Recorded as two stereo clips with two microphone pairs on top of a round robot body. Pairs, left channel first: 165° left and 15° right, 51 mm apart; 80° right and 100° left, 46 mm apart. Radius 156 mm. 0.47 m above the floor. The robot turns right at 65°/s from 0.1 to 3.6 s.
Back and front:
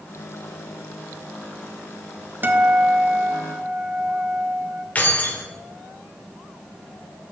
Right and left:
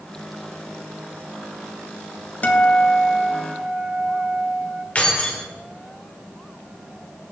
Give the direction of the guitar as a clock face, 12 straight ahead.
1 o'clock.